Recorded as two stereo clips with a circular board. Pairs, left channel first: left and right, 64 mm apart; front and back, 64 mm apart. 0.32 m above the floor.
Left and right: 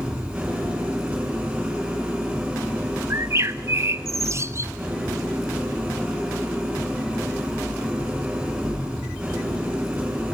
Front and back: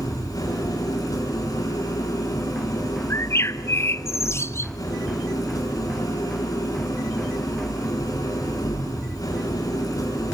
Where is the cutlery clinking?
No cutlery clinking in this recording.